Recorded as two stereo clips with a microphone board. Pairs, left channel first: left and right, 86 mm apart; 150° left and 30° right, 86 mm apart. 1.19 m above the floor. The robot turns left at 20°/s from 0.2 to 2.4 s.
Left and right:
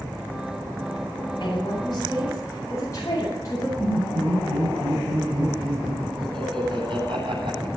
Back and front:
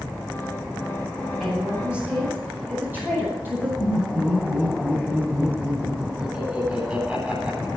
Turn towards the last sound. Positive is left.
turn(degrees=-110)